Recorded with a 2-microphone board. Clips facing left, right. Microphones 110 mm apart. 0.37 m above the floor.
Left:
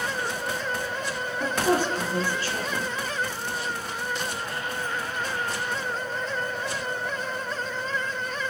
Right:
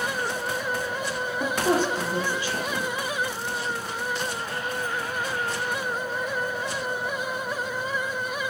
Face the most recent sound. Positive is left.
turn(degrees=-15)  # may be behind; listen again after turning